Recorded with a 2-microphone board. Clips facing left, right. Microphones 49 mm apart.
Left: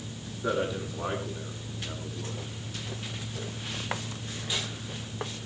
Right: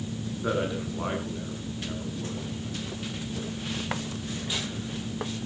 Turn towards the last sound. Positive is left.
turn(degrees=-15)  # may be behind; listen again after turning